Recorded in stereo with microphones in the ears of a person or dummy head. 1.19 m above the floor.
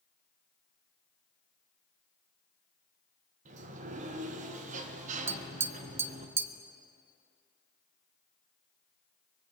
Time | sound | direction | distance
3.5 | a sliding door | 40° right (ahead or behind) | 1.2 m
5.3 | tapping | 15° right (ahead or behind) | 0.6 m